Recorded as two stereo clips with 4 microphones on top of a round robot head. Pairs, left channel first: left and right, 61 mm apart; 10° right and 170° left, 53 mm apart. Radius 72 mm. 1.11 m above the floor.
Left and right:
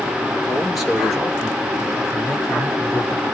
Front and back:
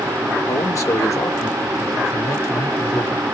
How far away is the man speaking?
About 2.5 m.